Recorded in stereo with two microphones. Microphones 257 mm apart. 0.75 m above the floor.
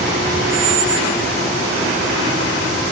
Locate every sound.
0.5 s a squeak: 30° right (ahead or behind), 1.2 m